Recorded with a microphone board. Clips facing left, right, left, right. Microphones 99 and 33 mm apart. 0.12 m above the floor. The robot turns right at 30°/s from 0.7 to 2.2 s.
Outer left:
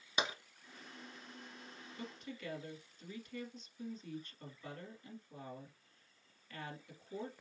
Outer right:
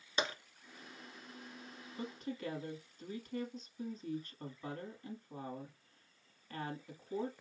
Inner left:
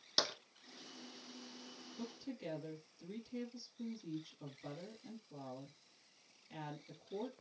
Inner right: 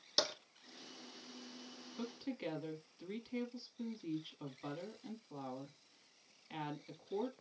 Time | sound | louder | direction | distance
0.2 | tapping | outer right 1 dB, even | 15° left (ahead or behind) | 1.2 m
1.9 | a woman speaking | outer right 6 dB, inner right 4 dB | 35° right (ahead or behind) | 2 m